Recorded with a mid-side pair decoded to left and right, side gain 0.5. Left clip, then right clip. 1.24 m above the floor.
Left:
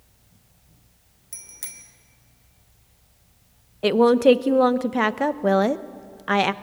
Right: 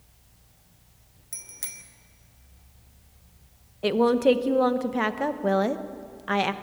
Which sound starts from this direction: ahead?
A bicycle bell, at 1.3 s.